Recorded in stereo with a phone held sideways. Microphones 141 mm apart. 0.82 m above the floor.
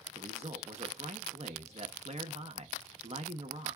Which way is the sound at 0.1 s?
50° right (ahead or behind).